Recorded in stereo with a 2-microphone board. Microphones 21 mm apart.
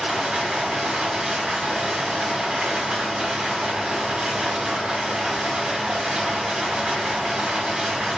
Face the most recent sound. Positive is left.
turn(degrees=-45)  # may be behind; listen again after turning